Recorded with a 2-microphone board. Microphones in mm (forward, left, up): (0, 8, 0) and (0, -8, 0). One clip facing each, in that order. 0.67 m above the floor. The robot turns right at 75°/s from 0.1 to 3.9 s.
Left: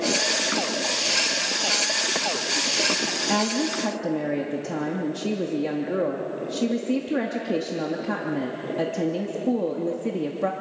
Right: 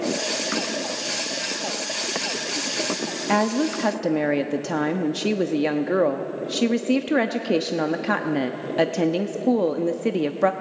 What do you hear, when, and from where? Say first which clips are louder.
3.3 s a woman speaking: right 6 dB; 150° right, 0.8 m; by 10.5 s 105° right, 0.8 m